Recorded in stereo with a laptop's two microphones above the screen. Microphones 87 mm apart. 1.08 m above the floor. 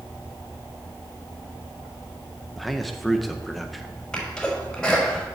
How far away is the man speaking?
About 0.7 m.